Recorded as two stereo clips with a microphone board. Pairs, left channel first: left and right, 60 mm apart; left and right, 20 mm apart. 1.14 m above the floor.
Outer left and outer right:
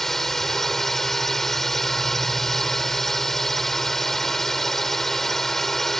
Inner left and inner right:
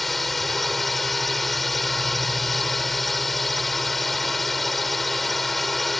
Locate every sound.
0.0 s a drone: 5° left (ahead or behind)